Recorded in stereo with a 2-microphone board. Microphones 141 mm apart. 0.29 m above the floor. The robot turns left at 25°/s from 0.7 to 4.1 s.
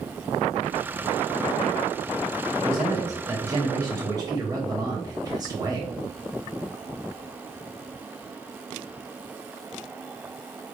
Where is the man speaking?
20° right (ahead or behind), 0.9 m; by 5.9 s 25° right (ahead or behind), 0.9 m.